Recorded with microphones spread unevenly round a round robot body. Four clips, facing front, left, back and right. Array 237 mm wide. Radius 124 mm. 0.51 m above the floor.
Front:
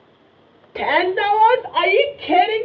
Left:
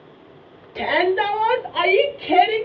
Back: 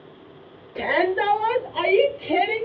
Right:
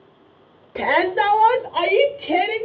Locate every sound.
0.8 s a shout: 45° right, 1.3 m; by 2.7 s 15° left, 1.6 m